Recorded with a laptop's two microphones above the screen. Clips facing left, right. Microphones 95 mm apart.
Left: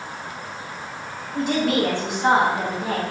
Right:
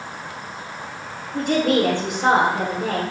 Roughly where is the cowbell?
No cowbell in this recording.